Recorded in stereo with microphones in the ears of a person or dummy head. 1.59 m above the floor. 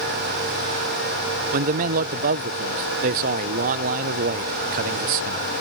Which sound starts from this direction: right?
A man speaking, at 1.5 s.